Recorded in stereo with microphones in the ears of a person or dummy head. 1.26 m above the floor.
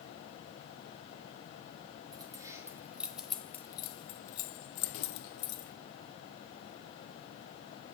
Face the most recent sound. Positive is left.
turn(degrees=75)  # may be behind; listen again after turning